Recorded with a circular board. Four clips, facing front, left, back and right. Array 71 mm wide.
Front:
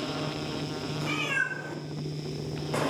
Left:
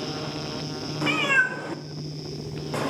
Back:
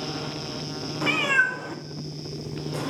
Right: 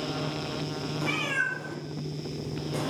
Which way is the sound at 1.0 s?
140° left.